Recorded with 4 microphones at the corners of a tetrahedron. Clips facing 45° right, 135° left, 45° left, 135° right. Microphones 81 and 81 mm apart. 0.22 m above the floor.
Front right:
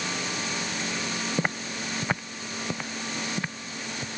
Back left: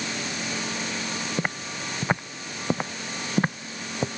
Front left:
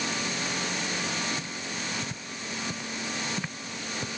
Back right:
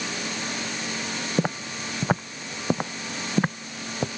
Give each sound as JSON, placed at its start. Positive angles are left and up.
{"t": 1.4, "sound": "footsteps", "azimuth_deg": -130}